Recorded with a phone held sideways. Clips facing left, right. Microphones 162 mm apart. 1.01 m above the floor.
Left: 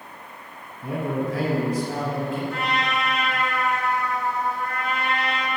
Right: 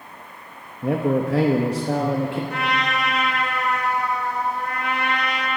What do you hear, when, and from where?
0.8 s a man speaking: 70° right (ahead or behind), 1.0 m; by 2.4 s 65° right (ahead or behind), 1.4 m
2.5 s a trumpet: 65° right (ahead or behind), 2.5 m